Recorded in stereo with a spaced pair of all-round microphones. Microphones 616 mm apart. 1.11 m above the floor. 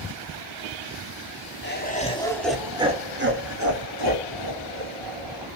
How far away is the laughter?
About 2.5 m.